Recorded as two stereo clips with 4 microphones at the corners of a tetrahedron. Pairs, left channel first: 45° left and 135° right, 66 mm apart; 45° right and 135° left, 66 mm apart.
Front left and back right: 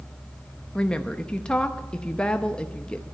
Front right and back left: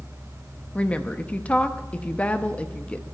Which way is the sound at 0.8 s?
15° right.